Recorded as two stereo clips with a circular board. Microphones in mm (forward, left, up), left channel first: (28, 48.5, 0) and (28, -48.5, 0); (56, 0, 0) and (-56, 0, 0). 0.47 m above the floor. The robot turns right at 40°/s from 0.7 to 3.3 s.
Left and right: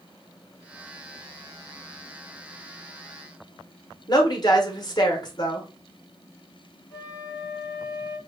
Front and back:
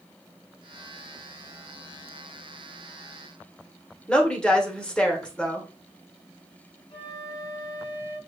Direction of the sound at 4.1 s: 75° left.